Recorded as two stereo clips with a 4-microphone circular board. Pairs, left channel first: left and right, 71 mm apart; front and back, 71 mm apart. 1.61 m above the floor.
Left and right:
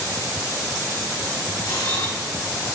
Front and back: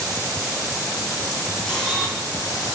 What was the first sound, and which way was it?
A camera shutter, 85° left.